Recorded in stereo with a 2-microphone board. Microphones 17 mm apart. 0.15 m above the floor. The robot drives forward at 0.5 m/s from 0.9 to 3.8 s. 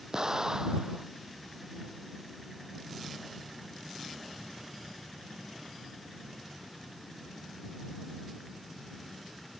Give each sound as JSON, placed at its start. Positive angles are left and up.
{"t": 0.1, "sound": "an explosion", "side_deg": -40}